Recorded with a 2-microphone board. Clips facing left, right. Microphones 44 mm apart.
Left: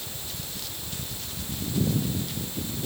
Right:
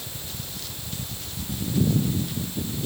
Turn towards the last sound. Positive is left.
No sound to turn to.